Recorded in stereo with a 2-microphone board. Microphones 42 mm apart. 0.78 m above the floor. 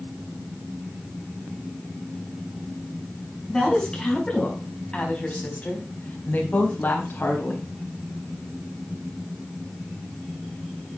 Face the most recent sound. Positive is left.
turn(degrees=60)  # may be behind; listen again after turning